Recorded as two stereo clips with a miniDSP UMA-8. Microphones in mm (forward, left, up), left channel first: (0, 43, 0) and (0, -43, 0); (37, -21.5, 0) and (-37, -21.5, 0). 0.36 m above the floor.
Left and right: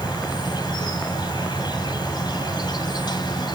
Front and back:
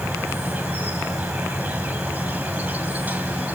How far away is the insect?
About 2.5 m.